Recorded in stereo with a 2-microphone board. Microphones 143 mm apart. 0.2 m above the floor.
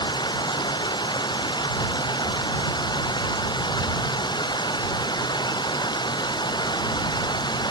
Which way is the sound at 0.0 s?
30° left (ahead or behind).